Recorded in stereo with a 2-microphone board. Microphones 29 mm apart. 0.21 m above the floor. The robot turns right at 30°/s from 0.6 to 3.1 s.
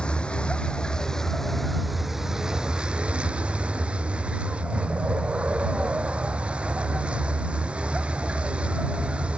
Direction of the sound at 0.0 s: 145° left.